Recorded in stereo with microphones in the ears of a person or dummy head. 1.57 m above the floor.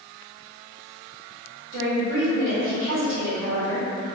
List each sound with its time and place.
1.7 s a woman speaking: 55° right (ahead or behind), 1.4 m